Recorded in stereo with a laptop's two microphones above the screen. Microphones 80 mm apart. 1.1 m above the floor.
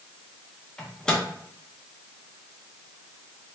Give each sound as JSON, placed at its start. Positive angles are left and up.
{"t": 0.8, "sound": "a microwave", "side_deg": 10, "distance_m": 0.9}